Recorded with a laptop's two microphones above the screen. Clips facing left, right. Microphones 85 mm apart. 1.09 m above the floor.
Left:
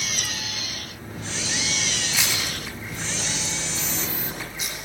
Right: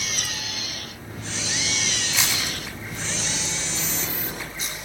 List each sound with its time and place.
2.1 s chewing: 10° left (ahead or behind), 7.5 m